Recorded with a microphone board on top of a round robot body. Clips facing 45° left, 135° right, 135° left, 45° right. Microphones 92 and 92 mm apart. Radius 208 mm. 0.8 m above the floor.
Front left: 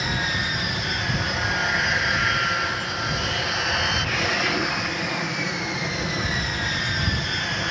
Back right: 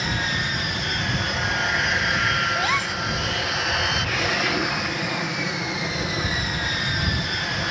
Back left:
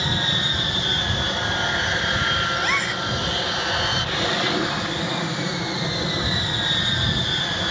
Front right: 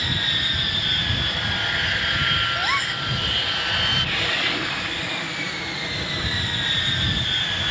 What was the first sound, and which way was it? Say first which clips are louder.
An aircraft: even, back left 3 dB; 130° left.